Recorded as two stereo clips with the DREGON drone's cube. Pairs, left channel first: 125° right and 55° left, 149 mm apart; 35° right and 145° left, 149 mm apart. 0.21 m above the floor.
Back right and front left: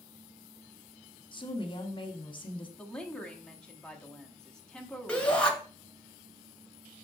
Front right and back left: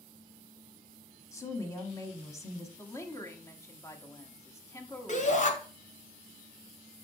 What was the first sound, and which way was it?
A woman speaking, 95° right.